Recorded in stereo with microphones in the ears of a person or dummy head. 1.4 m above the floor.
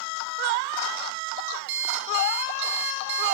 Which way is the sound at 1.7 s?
65° right (ahead or behind).